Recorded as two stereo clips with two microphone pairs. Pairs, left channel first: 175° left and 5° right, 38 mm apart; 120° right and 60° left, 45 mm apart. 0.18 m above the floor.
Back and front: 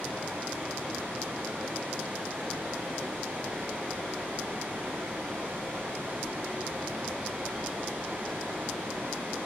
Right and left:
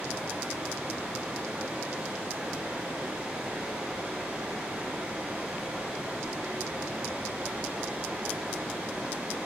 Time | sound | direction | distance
0.0 | running water | 10° right | 9 m